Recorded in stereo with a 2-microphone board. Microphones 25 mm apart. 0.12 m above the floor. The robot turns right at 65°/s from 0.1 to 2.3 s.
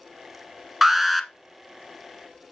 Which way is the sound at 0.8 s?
10° right (ahead or behind).